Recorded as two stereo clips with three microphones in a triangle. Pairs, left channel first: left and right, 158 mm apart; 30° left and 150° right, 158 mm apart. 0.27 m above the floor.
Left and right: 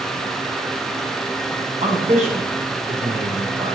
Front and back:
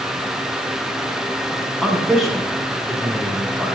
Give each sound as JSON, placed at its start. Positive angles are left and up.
{"t": 1.8, "sound": "a man speaking", "azimuth_deg": -60, "distance_m": 2.0}